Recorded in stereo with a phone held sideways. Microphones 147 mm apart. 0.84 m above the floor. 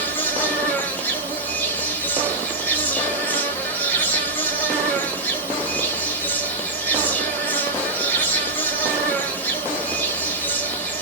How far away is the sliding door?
I don't hear a sliding door.